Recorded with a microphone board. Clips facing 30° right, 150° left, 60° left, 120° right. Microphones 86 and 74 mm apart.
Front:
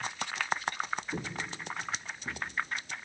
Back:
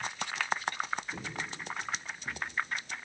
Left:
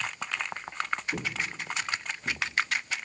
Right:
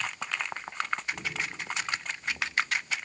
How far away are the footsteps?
About 3 m.